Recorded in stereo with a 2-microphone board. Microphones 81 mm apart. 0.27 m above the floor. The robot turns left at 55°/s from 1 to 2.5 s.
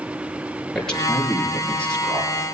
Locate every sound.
0.8 s a man speaking: 5° left, 5.5 m; by 2.3 s 65° right, 5.5 m